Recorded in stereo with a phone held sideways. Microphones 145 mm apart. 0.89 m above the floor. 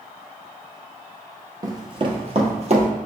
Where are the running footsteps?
25° right (ahead or behind), 1.0 m; by 2.9 s 55° right (ahead or behind), 1.6 m.